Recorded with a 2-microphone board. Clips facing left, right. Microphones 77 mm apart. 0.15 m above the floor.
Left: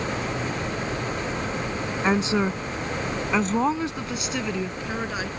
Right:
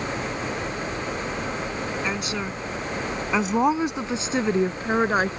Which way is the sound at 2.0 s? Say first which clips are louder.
Left 6 dB; 35° left (ahead or behind).